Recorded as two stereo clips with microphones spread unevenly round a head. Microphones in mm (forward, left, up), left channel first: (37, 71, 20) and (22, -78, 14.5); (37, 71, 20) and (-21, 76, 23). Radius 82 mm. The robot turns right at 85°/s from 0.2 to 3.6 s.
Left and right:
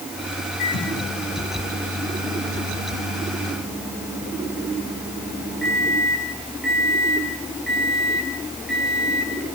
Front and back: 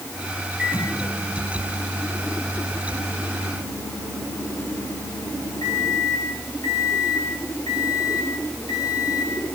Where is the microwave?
100° left, 8.5 m; by 9.6 s 5° right, 8.5 m.